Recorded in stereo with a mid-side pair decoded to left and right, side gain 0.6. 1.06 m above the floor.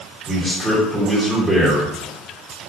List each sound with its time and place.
0.3 s a man speaking: 10° right, 1.2 m